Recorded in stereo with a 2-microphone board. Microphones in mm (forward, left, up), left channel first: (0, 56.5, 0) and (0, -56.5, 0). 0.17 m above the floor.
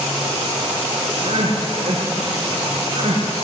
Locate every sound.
1.2 s crying: 60° right (ahead or behind), 7 m